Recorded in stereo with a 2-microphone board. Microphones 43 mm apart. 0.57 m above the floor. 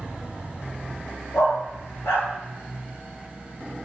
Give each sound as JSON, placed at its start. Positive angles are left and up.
{"t": 1.3, "sound": "a dog barking", "side_deg": 85, "distance_m": 3.0}